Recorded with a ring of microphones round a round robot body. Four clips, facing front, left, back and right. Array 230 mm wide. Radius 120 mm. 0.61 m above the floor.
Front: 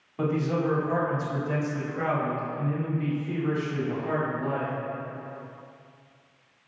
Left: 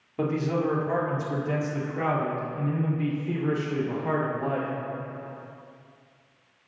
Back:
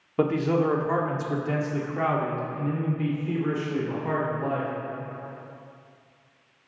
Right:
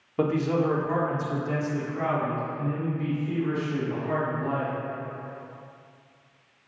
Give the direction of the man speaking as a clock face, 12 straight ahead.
5 o'clock.